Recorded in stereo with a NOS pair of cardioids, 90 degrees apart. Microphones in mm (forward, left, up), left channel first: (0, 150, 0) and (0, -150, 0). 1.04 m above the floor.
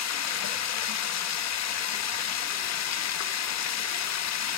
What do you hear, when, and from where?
0.0 s running water: 65° left, 1.3 m